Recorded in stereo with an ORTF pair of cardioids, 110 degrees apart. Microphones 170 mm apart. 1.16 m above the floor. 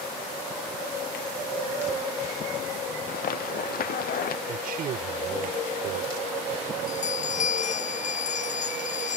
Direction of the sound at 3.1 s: 60° left.